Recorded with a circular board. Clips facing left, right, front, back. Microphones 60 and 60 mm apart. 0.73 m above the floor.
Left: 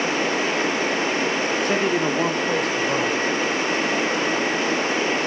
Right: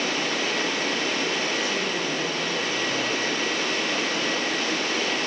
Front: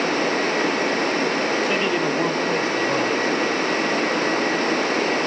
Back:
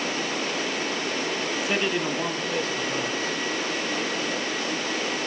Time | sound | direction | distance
1.6 | a man speaking | 95° left | 1.0 m